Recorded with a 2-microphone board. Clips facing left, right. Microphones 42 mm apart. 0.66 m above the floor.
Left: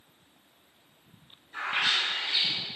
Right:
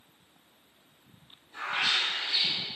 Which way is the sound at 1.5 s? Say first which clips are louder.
Left 1 dB; 30° left (ahead or behind).